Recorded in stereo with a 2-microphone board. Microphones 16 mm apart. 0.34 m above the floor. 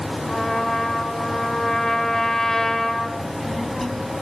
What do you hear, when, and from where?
0.3 s a trumpet: 30° left (ahead or behind), 1.5 m
3.2 s a child speaking: 5° left (ahead or behind), 2 m